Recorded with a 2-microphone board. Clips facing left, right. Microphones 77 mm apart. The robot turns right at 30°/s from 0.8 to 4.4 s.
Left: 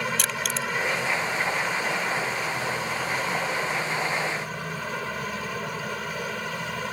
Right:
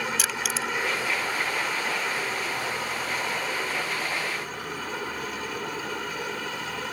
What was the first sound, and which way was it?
Crushing, 5° right (ahead or behind).